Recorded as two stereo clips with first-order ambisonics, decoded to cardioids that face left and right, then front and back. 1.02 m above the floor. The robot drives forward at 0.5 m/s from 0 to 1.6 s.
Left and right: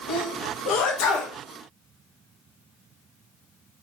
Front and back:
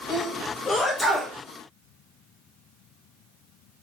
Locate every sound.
0.1 s a sneeze: 65° left, 1.0 m; by 1.4 s 100° left, 1.0 m